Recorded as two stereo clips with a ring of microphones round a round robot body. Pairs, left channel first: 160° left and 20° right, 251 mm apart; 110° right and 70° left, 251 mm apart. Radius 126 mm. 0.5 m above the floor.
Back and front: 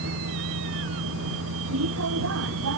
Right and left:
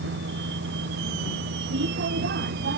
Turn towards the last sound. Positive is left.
turn(degrees=15)